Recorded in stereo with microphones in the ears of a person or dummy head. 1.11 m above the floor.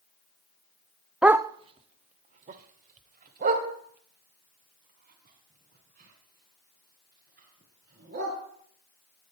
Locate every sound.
1.2 s a dog barking: 5° right (ahead or behind), 0.6 m; by 8.3 s 55° right (ahead or behind), 8.5 m